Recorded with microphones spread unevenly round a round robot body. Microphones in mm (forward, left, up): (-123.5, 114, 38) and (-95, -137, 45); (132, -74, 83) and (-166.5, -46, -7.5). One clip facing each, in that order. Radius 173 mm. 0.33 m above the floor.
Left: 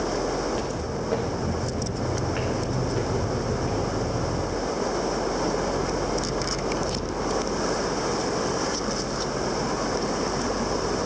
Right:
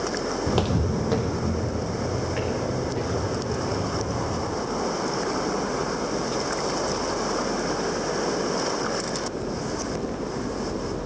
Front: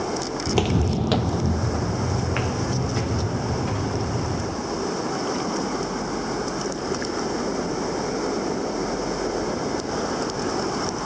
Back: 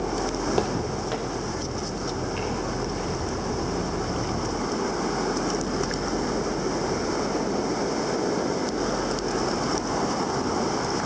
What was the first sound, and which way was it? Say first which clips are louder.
Footsteps: right 4 dB, front 6 dB; 65° right.